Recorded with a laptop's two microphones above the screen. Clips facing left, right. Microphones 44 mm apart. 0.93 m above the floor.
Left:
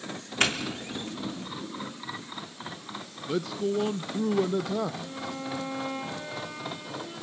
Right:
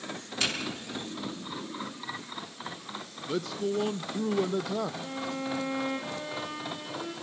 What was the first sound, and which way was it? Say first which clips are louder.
A doorbell: left 5 dB; 45° left (ahead or behind).